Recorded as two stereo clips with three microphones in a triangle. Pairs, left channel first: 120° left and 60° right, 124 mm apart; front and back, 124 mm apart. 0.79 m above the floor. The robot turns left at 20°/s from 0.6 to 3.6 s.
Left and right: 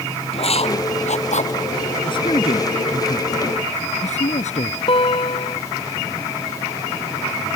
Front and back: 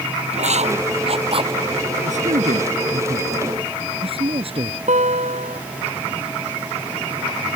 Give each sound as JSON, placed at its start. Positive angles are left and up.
{"t": 0.3, "sound": "writing", "azimuth_deg": 155}
{"t": 2.0, "sound": "a man speaking", "azimuth_deg": 170}
{"t": 4.9, "sound": "a guitar", "azimuth_deg": 160}